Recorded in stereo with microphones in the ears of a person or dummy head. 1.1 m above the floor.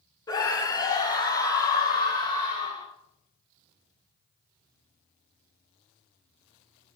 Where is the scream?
20° left (ahead or behind), 1.4 m; by 2.9 s 25° left (ahead or behind), 4 m.